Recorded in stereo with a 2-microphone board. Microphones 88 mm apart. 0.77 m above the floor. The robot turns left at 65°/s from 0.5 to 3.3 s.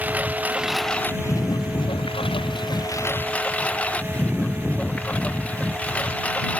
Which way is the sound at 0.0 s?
165° right.